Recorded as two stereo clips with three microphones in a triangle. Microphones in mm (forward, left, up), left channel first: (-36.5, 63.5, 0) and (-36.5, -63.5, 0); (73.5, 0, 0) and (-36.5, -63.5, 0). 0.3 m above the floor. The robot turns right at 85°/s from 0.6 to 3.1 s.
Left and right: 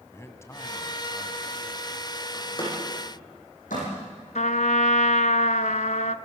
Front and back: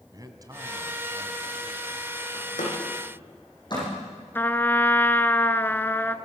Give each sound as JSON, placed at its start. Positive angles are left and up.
{"t": 0.1, "sound": "a man speaking", "azimuth_deg": 155, "distance_m": 2.0}
{"t": 2.3, "sound": "a door slam", "azimuth_deg": 20, "distance_m": 9.5}
{"t": 4.3, "sound": "a trumpet", "azimuth_deg": 105, "distance_m": 0.9}